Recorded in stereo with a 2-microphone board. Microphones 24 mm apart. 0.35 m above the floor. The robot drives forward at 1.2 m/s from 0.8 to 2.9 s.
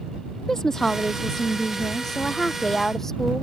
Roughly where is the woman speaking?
Centre.